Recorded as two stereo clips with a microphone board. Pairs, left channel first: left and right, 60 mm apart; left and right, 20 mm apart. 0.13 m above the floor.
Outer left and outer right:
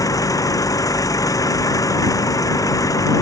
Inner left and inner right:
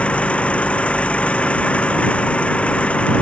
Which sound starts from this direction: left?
An engine running, at 0.0 s.